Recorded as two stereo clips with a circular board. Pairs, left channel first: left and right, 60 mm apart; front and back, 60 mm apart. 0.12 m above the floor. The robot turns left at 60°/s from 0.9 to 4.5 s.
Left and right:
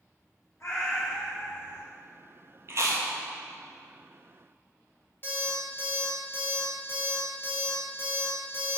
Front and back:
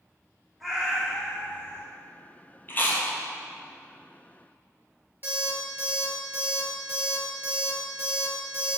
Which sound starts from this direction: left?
A cat meowing, at 0.6 s.